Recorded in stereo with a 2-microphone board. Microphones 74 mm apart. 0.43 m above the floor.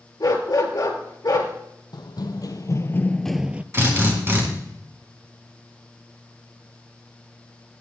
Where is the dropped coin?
No dropped coin in this recording.